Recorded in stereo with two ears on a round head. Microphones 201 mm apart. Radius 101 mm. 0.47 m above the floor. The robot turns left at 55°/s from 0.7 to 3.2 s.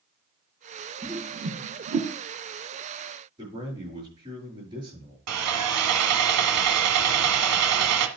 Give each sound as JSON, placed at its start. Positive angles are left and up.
{"t": 1.0, "sound": "a whoosh", "side_deg": -35, "distance_m": 3.0}
{"t": 3.4, "sound": "a man speaking", "side_deg": -20, "distance_m": 7.0}
{"t": 5.3, "sound": "sawing", "side_deg": -85, "distance_m": 1.2}